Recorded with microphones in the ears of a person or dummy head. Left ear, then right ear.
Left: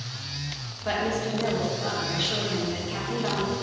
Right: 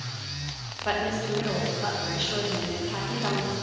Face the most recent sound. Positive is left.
turn(degrees=-25)  # may be behind; listen again after turning